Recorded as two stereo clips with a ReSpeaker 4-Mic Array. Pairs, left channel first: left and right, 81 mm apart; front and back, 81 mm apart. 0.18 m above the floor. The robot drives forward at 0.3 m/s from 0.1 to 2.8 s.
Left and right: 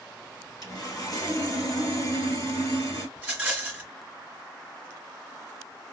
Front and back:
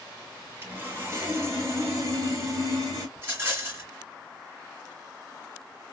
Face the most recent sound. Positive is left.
turn(degrees=-160)